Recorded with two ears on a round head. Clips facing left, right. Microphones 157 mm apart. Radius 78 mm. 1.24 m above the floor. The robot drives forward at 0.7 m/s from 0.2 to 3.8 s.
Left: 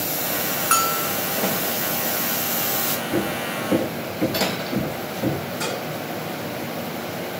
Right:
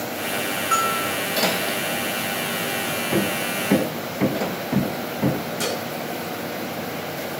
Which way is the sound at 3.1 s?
75° right (ahead or behind).